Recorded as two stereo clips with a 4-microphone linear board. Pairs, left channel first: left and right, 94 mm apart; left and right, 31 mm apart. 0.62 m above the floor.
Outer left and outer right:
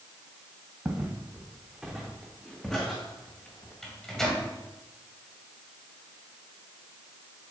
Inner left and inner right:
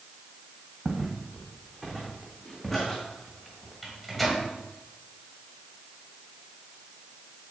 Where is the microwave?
5° left (ahead or behind), 2 m.